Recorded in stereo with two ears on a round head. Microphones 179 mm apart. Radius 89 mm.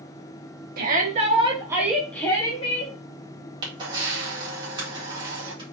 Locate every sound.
0.8 s a shout: 45° right (ahead or behind), 1.9 m; by 3.0 s 40° left (ahead or behind), 1.7 m
3.6 s a camera shutter: 25° right (ahead or behind), 2 m